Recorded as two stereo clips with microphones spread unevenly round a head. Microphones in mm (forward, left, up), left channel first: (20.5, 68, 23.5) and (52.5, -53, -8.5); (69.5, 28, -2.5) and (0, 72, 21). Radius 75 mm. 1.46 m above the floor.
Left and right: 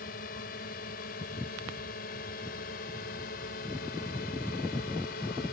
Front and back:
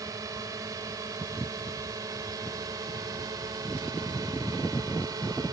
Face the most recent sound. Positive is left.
turn(degrees=110)